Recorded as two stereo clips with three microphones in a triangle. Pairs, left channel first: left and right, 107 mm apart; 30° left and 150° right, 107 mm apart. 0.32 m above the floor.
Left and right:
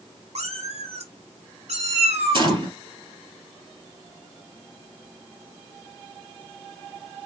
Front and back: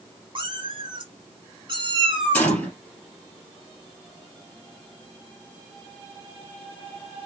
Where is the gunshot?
45° right, 2.5 m.